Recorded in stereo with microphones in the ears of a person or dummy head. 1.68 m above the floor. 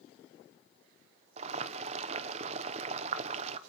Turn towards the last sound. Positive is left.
turn(degrees=-35)  # may be behind; listen again after turning